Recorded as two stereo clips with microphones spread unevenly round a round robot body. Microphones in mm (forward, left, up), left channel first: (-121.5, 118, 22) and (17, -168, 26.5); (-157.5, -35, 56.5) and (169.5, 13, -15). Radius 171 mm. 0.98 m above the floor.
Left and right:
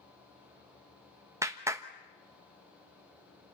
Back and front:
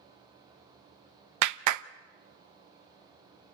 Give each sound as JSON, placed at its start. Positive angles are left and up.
{"t": 1.4, "sound": "a clap", "azimuth_deg": 15, "distance_m": 0.9}